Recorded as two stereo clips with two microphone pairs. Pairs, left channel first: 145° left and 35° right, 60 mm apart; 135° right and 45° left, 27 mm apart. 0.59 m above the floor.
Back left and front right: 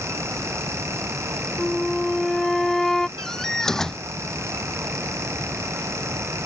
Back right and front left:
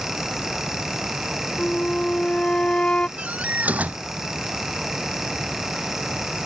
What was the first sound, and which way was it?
A flute, 135° right.